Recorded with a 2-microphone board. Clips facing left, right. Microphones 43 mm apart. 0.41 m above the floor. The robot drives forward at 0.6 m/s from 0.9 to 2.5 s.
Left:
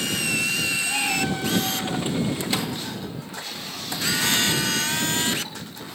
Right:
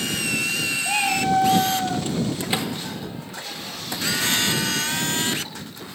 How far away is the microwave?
About 0.7 m.